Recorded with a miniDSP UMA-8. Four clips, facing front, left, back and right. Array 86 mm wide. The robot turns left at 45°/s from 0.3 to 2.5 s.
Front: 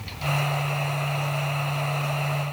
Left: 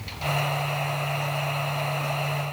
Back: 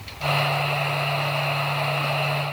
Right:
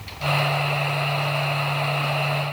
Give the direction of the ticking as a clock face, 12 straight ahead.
I don't hear ticking.